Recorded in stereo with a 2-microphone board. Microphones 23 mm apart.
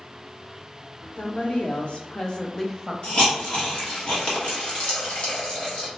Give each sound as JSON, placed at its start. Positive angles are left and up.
{"t": 1.2, "sound": "a woman speaking", "side_deg": 80, "distance_m": 1.0}
{"t": 3.0, "sound": "a hiss", "side_deg": 50, "distance_m": 1.1}